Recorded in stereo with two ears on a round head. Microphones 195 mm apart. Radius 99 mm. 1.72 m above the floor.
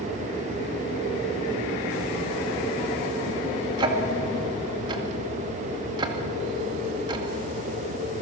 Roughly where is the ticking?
Right.